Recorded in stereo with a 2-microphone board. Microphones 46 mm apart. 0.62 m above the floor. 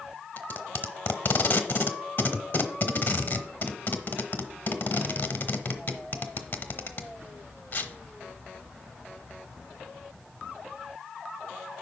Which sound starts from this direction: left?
Tape being pulled, at 0.4 s.